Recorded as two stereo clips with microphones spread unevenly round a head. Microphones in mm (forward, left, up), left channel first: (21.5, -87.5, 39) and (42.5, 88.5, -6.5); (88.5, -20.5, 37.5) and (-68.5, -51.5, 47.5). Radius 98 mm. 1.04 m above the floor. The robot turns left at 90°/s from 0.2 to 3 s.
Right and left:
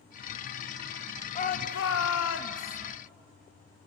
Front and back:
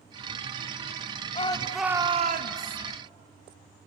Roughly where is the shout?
Ahead right.